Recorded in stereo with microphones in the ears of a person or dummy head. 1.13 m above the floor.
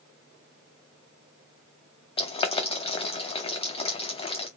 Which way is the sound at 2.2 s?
25° left (ahead or behind).